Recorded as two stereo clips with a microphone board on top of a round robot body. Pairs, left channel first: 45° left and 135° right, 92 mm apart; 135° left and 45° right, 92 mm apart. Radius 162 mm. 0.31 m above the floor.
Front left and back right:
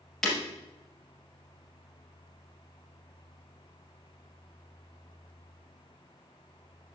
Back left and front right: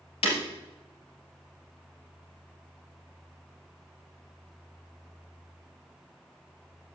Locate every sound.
0.2 s breaking glass: 130° left, 3 m